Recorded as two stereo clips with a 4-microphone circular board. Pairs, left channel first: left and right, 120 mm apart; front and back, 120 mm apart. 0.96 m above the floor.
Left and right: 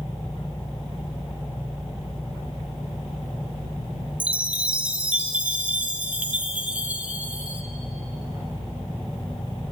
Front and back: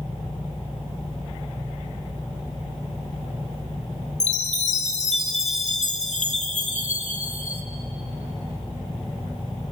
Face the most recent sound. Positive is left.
turn(degrees=-10)